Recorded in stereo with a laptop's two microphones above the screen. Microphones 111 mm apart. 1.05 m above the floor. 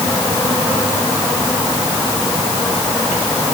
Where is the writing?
I don't hear writing.